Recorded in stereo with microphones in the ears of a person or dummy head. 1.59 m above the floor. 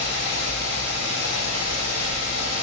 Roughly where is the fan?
Left.